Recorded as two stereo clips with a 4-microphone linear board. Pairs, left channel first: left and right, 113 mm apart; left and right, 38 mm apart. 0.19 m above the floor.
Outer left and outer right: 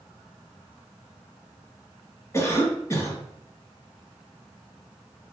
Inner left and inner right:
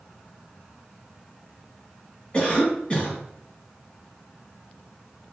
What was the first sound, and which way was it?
A cough, 25° left (ahead or behind).